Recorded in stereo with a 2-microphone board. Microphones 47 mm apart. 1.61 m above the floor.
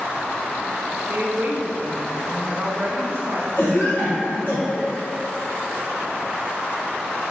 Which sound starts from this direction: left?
A cough, at 3.6 s.